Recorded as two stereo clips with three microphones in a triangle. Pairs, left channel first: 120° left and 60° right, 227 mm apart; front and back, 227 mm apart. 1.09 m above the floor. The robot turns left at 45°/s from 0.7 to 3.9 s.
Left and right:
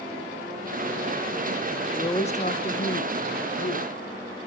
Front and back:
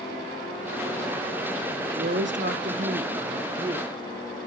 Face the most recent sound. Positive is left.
turn(degrees=105)